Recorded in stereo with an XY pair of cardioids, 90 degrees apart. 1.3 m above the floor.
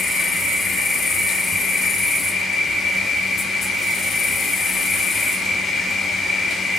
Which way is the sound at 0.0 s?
60° left.